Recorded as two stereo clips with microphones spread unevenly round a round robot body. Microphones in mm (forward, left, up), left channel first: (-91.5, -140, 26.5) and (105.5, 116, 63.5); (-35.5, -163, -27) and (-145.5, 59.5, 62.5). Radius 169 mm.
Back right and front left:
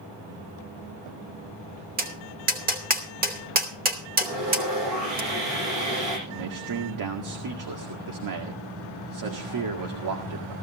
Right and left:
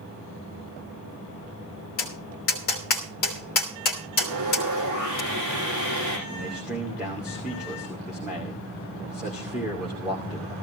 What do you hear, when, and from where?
2.0 s tapping: 15° right, 2.5 m
4.2 s sawing: 80° left, 9.5 m
6.3 s a man speaking: 20° left, 2 m